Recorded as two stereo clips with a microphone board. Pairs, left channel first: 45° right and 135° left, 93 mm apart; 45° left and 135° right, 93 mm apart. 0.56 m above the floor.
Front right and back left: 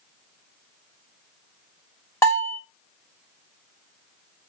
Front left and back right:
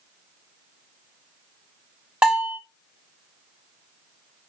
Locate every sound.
2.2 s a bell: 70° right, 1.0 m